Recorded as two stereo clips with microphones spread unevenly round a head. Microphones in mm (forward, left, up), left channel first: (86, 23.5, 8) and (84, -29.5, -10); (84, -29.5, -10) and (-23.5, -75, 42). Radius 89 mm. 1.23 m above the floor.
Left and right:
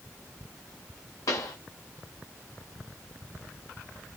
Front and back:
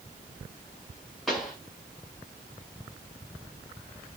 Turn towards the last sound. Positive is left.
turn(degrees=115)